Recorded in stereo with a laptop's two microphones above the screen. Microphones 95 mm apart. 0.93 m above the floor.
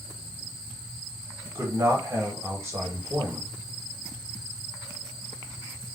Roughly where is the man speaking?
Right.